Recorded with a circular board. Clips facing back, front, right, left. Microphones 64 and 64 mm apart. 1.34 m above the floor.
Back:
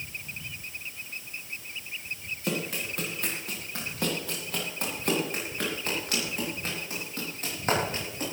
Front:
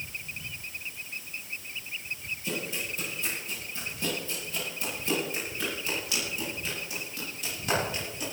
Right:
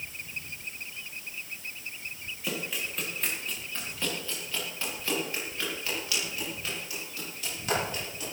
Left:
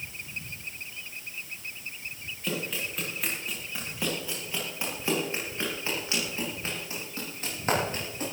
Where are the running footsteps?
175° right, 6.5 m; by 8.2 s 135° left, 11.5 m.